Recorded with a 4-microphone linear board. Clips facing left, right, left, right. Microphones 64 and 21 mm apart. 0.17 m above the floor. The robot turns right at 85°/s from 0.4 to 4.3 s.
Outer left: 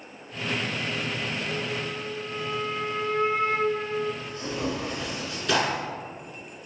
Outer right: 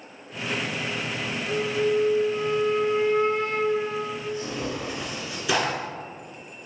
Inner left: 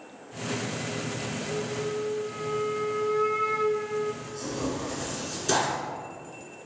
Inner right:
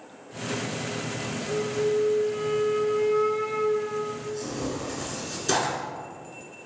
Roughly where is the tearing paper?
Centre.